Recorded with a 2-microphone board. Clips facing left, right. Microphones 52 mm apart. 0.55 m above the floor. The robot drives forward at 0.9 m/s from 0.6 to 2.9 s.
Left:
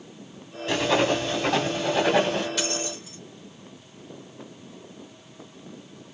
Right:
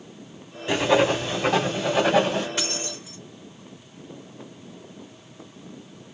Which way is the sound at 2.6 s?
30° right (ahead or behind).